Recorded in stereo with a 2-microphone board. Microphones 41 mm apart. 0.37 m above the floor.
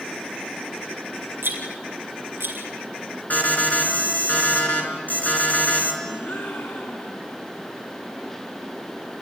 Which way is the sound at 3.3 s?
45° left (ahead or behind).